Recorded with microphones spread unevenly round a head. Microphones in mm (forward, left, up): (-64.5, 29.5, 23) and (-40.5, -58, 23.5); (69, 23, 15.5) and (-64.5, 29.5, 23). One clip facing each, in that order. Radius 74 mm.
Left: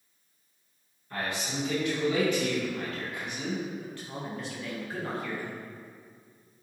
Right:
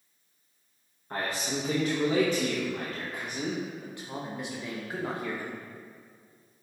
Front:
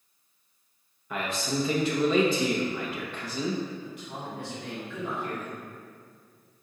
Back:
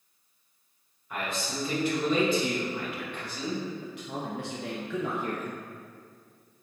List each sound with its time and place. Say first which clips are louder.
1.1 s a man speaking: right 2 dB, front 3 dB; 10° right, 1.3 m
3.8 s a man speaking: even, back 2 dB; 150° right, 0.9 m